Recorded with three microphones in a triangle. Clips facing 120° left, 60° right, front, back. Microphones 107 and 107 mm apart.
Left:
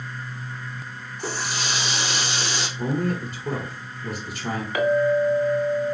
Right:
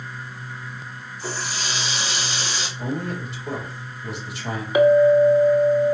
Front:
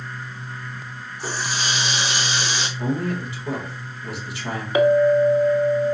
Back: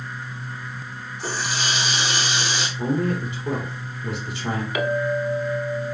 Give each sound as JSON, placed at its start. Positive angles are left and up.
{"t": 1.2, "sound": "a running tap", "azimuth_deg": 90, "distance_m": 3.0}
{"t": 2.8, "sound": "a man speaking", "azimuth_deg": 125, "distance_m": 1.9}
{"t": 4.8, "sound": "a clink", "azimuth_deg": -5, "distance_m": 0.7}